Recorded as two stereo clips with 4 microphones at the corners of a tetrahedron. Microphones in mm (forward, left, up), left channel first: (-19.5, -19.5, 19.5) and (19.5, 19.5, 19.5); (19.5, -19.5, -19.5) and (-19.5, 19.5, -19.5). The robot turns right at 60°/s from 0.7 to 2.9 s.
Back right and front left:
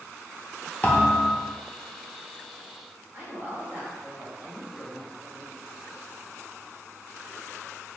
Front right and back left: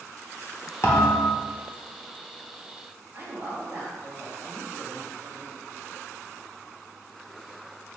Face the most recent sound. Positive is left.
turn(degrees=100)